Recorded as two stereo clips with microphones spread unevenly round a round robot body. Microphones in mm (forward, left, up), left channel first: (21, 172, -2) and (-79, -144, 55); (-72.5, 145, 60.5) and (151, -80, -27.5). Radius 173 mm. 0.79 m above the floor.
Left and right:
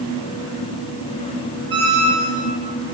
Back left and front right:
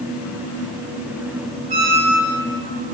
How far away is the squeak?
About 1.7 m.